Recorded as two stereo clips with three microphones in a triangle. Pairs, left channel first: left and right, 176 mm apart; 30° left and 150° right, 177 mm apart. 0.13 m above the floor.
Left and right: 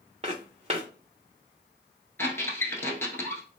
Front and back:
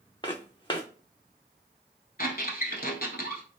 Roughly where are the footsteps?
Ahead right.